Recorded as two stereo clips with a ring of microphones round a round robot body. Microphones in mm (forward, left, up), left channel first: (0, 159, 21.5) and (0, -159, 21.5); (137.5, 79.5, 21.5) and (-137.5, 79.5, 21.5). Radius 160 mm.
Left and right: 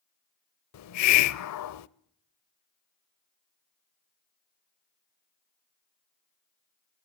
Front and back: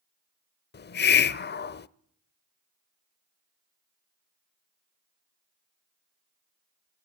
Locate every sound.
0.7 s a hiss: 55° left, 0.7 m